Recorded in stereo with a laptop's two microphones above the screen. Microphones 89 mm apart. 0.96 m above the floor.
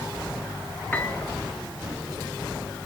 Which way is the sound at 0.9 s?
20° left (ahead or behind).